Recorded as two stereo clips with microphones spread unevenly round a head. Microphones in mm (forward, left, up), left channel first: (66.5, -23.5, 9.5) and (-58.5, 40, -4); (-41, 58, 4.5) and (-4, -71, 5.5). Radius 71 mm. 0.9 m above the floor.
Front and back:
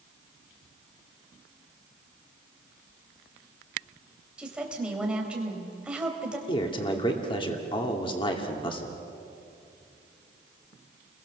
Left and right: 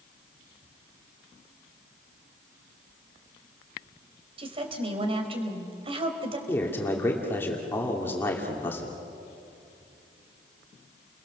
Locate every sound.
4.4 s a woman speaking: 125° right, 4 m
6.5 s a man speaking: 30° left, 2.5 m